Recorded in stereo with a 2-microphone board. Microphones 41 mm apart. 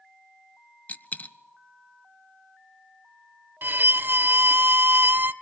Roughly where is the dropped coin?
Left.